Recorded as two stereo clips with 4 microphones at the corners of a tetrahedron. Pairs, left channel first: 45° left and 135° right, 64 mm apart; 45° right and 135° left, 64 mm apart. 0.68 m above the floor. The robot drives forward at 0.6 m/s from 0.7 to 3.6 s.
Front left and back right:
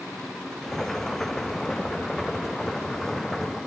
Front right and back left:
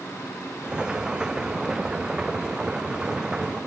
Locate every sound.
Only background noise.